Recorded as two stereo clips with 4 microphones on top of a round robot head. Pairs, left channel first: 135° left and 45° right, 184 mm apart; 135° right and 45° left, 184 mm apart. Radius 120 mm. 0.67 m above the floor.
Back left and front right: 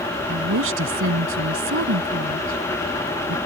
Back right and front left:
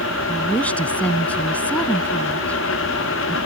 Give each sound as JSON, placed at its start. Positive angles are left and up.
{"t": 0.3, "sound": "a woman speaking", "azimuth_deg": -50}